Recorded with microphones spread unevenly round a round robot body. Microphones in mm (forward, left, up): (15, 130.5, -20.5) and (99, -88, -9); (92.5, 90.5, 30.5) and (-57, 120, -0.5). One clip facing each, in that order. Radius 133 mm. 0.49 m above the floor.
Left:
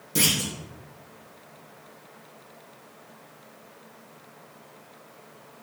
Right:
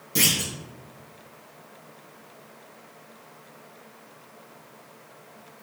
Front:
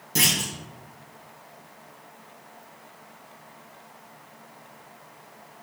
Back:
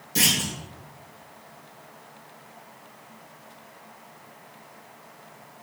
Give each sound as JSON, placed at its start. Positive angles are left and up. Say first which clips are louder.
{"t": 0.1, "sound": "a clunk", "louder": "left 1 dB, back 1 dB", "azimuth_deg": 20, "distance_m": 3.5}